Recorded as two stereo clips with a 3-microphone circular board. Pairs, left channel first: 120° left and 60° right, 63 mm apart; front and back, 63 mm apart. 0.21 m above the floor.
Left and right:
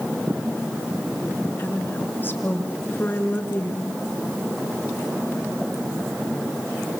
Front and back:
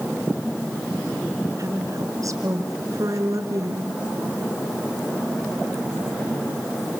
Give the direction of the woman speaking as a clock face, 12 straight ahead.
6 o'clock.